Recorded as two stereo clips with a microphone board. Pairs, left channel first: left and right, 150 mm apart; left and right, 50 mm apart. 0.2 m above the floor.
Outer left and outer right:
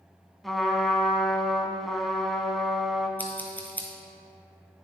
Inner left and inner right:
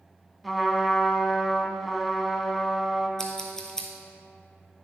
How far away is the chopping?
I don't hear chopping.